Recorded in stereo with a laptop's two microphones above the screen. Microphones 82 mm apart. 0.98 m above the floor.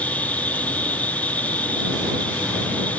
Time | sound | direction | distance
0.0 | an insect | 20° left (ahead or behind) | ?